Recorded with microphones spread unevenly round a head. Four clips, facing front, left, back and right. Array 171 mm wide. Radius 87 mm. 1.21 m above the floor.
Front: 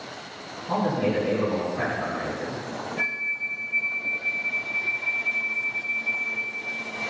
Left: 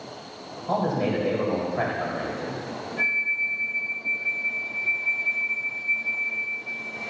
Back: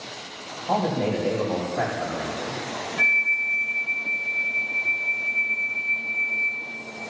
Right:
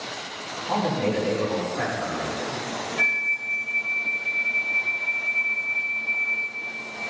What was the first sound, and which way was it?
A man speaking, 150° left.